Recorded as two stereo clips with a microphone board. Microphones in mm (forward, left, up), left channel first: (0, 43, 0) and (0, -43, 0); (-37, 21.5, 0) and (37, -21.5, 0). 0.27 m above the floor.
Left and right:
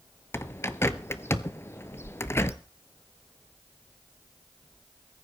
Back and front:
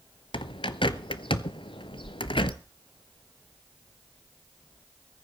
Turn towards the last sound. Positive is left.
turn(degrees=150)